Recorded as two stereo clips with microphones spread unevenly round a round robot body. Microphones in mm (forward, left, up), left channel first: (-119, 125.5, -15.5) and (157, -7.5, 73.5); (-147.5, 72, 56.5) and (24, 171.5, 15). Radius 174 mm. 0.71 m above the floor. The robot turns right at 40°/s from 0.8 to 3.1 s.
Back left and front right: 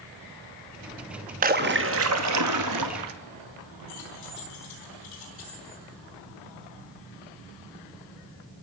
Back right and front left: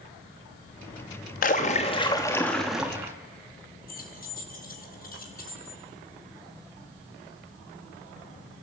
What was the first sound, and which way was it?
A splash, 100° right.